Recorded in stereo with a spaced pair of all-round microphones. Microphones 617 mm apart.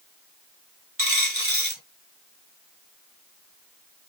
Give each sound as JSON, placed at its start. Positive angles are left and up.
{"t": 1.0, "sound": "a dropped coin", "side_deg": -20, "distance_m": 2.0}